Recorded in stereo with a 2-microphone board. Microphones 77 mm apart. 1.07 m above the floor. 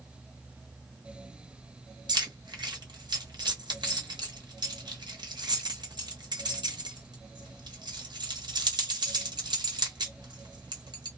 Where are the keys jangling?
70° right (ahead or behind), 1.2 m.